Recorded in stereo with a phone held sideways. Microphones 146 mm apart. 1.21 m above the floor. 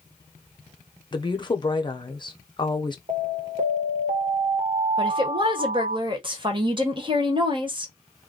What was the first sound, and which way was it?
A woman speaking, 30° left (ahead or behind).